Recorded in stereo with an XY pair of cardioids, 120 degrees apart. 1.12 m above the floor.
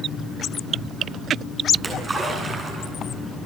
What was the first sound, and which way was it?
A splash, 30° right.